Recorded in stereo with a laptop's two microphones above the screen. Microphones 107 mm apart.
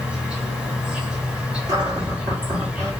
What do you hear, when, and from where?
0.0 s an insect: 10° right (ahead or behind), 1.3 m
1.7 s a cupboard door: 35° right (ahead or behind), 2 m